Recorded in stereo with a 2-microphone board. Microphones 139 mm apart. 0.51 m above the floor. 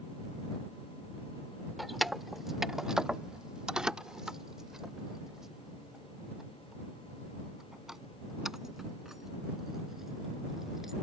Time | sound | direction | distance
1.8 | keys jangling | centre (ahead or behind) | ?